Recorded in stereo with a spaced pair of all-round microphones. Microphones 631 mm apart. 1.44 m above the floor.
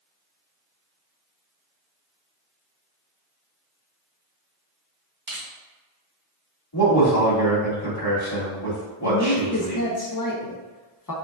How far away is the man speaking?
About 2.0 m.